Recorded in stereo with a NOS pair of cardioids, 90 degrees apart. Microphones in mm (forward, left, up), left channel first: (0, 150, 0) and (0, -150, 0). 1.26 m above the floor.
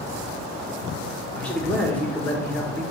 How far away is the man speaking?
About 1.3 m.